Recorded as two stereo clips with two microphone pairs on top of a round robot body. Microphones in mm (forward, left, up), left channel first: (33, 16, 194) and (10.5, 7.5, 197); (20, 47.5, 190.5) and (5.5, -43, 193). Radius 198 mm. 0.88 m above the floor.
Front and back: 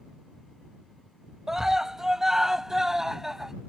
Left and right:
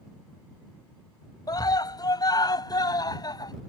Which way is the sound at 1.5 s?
130° left.